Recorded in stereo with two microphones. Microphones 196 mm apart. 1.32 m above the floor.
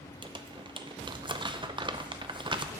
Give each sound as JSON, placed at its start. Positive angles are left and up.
{"t": 0.2, "sound": "crumpling", "side_deg": -25, "distance_m": 0.5}